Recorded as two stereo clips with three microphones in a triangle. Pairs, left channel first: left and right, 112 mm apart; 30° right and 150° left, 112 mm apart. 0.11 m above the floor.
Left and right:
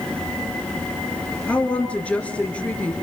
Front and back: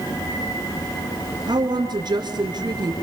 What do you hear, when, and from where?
1.5 s a woman speaking: 160° left, 2 m